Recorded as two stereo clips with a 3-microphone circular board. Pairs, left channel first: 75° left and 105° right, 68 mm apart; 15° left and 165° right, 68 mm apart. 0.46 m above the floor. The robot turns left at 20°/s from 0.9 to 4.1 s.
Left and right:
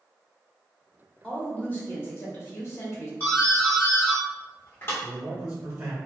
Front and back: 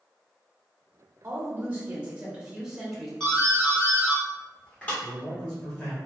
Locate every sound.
1.2 s a woman speaking: 145° left, 1.3 m; by 3.1 s 105° left, 1.3 m
3.2 s a doorbell: 85° left, 1.3 m; by 4.9 s 70° left, 1.3 m
5.0 s a man speaking: 60° right, 1.8 m